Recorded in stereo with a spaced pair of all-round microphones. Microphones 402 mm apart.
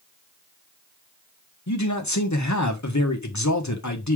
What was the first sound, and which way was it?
A man speaking, 45° left (ahead or behind).